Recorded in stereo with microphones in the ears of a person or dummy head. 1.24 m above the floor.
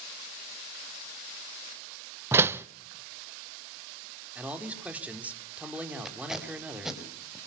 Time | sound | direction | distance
2.3 | a door slam | 15° right (ahead or behind) | 0.7 m
4.3 | a man speaking | 5° right (ahead or behind) | 3.5 m
6.0 | tape being pulled | centre (ahead or behind) | 4 m